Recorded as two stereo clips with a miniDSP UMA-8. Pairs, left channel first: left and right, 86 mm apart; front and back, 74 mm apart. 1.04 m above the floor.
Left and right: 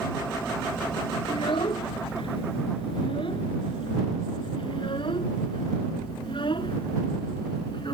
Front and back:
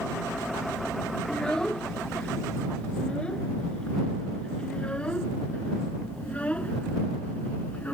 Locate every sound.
1.3 s a child speaking: 80° left; by 7.9 s 70° left